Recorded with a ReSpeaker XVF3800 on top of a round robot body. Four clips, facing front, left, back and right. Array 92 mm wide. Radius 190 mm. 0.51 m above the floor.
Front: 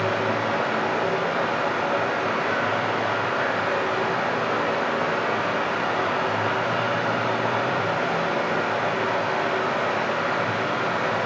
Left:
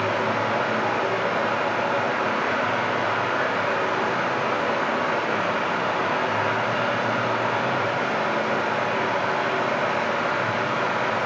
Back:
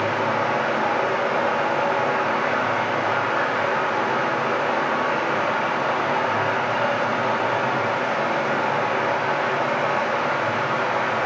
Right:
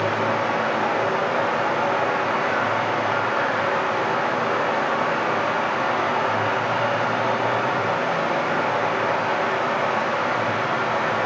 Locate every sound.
0.0 s running water: 140° right, 2 m